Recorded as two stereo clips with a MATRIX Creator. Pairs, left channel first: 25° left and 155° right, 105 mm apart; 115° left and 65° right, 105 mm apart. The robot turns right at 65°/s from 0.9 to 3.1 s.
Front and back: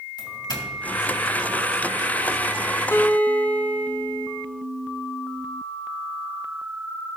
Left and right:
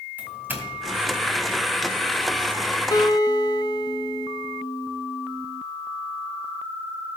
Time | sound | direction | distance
0.2 | a doorbell | 5° right | 2 m
2.9 | a guitar | 80° left | 0.6 m